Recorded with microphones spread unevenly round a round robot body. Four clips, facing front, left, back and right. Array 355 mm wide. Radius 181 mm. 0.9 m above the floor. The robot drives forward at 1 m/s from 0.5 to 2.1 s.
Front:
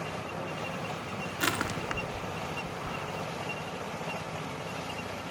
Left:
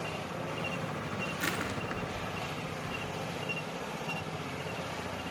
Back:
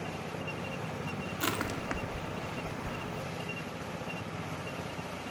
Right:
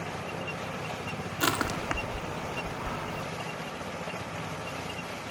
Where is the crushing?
50° right, 1.7 m; by 3.2 s 75° right, 1.4 m.